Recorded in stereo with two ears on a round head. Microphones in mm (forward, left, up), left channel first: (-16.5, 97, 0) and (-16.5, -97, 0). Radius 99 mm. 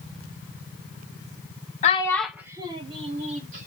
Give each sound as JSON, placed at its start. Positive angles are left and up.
{"t": 1.8, "sound": "a child speaking", "side_deg": 35, "distance_m": 0.6}